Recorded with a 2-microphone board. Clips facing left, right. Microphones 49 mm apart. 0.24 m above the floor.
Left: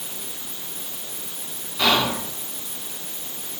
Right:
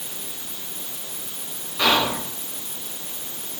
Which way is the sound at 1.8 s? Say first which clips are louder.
Even; 15° right (ahead or behind).